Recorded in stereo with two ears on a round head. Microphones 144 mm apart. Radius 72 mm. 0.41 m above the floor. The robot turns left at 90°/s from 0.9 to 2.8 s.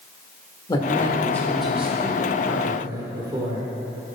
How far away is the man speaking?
About 1.2 m.